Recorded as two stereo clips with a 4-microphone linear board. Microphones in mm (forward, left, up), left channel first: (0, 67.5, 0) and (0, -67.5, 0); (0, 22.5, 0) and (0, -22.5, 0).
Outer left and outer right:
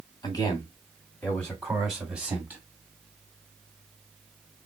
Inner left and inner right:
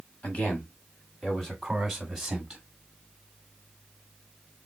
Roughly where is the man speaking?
Left.